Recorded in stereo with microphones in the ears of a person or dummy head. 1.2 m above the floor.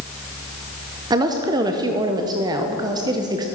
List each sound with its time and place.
1.1 s a woman speaking: 20° right (ahead or behind), 0.8 m